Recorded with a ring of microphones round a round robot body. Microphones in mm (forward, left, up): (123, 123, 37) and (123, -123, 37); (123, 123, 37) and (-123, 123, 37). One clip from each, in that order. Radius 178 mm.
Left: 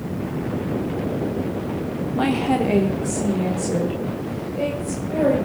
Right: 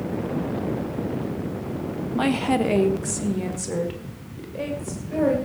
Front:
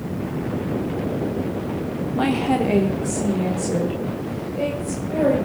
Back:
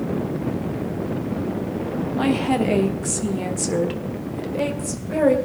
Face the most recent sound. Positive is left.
turn(degrees=-160)